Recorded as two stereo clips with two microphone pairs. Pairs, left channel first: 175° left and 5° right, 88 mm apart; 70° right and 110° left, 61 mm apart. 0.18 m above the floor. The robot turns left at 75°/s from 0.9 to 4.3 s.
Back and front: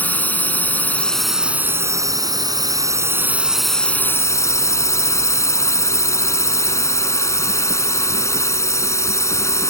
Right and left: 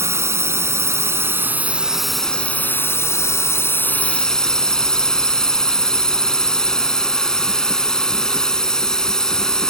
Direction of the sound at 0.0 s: 110° left.